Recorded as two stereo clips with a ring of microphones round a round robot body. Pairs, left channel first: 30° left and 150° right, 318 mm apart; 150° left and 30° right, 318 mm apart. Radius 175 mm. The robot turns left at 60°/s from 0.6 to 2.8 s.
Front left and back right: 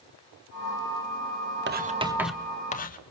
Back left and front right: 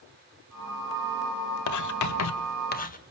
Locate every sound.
1.7 s writing: 160° left, 1.4 m; by 3.0 s 90° left, 1.4 m